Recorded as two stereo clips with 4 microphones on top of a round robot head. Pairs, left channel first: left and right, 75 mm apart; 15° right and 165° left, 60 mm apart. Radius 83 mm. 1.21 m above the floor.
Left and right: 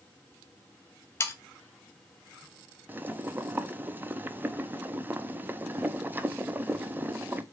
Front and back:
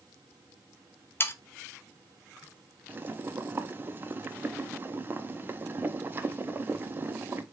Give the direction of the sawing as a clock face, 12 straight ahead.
11 o'clock.